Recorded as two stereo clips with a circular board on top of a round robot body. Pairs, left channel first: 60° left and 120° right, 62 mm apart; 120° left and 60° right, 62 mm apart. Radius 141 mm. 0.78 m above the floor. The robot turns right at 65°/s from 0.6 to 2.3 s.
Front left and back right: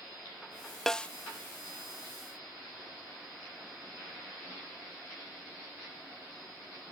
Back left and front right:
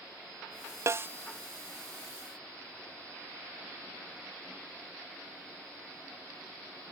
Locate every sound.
0.9 s a snare drum: 25° right; by 1.1 s 10° right